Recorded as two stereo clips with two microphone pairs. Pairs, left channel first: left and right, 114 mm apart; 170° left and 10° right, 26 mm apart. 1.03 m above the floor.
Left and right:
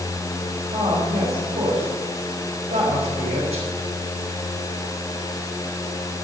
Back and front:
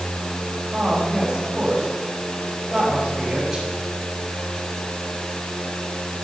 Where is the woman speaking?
80° right, 5 m.